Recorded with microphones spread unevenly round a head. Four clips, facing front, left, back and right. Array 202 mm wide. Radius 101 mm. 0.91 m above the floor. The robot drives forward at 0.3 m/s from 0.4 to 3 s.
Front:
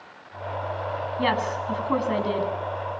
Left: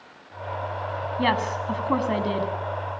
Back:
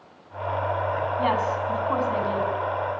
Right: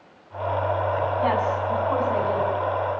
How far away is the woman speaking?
About 7 m.